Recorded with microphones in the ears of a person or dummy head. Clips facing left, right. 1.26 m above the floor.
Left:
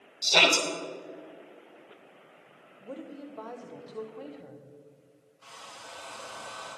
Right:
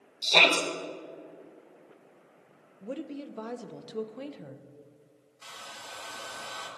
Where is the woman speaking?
40° right (ahead or behind), 0.8 m.